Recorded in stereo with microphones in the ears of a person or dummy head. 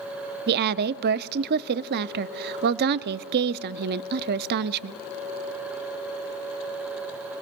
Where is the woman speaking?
55° right (ahead or behind), 0.5 m.